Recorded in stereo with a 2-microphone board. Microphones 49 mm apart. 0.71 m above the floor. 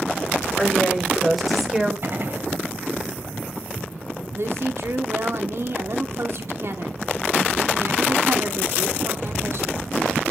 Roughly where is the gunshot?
Right.